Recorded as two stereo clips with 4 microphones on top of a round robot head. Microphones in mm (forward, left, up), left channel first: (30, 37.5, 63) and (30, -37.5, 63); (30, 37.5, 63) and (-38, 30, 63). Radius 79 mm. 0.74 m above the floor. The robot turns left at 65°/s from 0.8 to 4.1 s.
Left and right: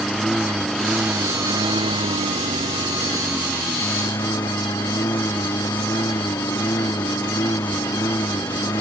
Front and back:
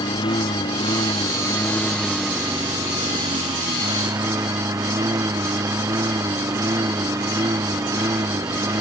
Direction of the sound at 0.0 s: Straight ahead.